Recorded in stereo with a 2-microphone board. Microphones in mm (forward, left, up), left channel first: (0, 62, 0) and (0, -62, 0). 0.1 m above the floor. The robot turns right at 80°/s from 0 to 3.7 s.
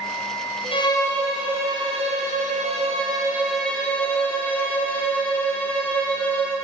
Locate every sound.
0.7 s a violin: 135° left, 6 m; by 6.5 s 10° left, 6 m